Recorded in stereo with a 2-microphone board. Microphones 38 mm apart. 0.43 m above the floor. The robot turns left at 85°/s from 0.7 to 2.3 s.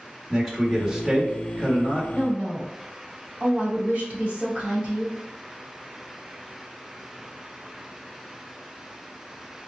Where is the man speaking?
5° left, 1.4 m; by 2.0 s 105° right, 1.4 m.